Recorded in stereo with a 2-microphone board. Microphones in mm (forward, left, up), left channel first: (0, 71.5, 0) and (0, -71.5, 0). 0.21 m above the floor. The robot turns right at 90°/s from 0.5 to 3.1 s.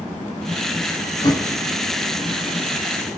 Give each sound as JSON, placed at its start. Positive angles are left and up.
{"t": 1.2, "sound": "a thud", "side_deg": 35, "distance_m": 1.8}